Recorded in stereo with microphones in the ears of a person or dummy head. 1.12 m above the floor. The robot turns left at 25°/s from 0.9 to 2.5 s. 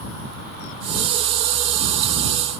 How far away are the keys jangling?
No keys jangling in this recording.